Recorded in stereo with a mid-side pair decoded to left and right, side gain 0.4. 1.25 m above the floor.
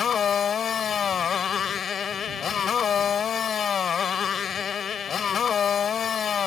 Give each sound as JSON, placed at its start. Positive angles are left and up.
{"t": 0.0, "sound": "a motorcycle", "azimuth_deg": 55}